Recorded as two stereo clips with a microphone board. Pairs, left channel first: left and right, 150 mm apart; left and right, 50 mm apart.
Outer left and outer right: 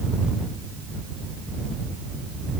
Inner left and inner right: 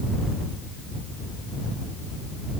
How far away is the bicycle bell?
I don't hear a bicycle bell.